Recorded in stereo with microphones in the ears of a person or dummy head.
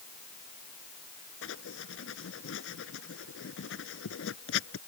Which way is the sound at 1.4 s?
80° left.